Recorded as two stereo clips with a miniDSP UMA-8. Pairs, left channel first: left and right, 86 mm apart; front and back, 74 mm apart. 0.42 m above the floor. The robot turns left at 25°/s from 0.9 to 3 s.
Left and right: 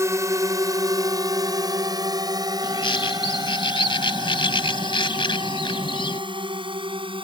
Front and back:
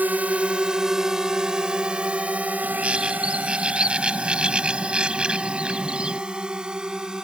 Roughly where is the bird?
Behind left.